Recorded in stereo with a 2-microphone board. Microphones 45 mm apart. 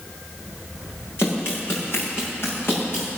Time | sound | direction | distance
1.2 | running footsteps | 60° left (ahead or behind) | 6.5 m